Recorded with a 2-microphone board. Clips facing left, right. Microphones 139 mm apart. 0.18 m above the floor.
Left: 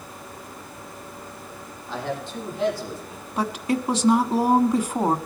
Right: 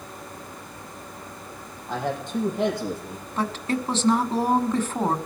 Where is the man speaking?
50° right (ahead or behind), 6 m; by 3.3 s 65° right (ahead or behind), 5.5 m.